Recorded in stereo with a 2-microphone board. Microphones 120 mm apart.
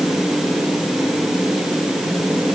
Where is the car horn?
I don't hear a car horn.